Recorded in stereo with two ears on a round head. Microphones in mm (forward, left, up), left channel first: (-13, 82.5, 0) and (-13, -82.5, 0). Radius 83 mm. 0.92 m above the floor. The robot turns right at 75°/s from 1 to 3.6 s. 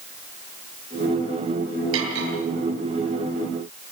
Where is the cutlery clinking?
80° right, 9 m; by 2.3 s 50° right (ahead or behind), 9 m.